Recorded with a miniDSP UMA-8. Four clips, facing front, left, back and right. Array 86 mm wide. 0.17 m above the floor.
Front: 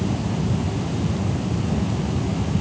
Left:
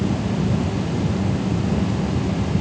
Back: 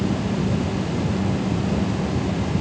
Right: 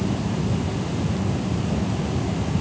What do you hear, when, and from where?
Only background noise.